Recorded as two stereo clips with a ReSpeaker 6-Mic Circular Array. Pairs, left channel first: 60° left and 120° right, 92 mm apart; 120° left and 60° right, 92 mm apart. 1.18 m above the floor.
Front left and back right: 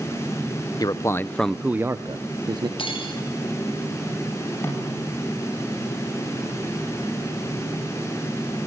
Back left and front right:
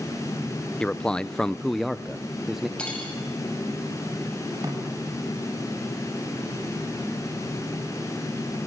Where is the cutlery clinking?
40° left, 5 m.